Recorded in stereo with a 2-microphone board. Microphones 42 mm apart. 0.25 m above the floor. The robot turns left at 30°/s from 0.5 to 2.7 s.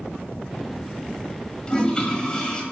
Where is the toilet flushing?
20° left (ahead or behind), 1.6 m; by 2.6 s 25° left (ahead or behind), 1.6 m.